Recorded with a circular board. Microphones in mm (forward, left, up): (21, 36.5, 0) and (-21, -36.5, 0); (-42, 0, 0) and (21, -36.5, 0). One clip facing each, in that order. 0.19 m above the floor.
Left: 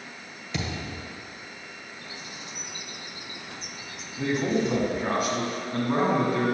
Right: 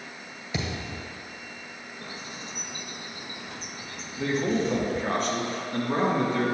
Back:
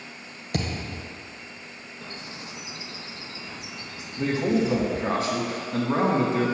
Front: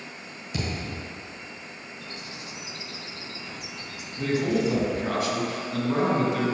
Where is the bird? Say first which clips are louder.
Right 4 dB, back 3 dB; 160° right, 0.6 m.